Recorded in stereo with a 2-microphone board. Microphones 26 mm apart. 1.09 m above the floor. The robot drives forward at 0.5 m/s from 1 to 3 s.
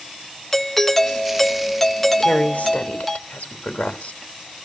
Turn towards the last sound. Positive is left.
turn(degrees=65)  # may be behind; listen again after turning